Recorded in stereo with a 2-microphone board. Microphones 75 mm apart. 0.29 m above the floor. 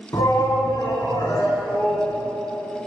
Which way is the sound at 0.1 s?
50° left (ahead or behind).